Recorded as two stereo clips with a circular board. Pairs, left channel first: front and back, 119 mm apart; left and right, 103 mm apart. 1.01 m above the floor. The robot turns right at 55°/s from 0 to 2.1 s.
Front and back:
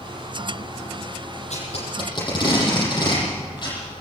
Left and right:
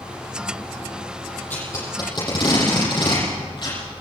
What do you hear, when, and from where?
1.5 s tape being pulled: 15° left, 9.5 m; by 3.8 s 50° left, 9.5 m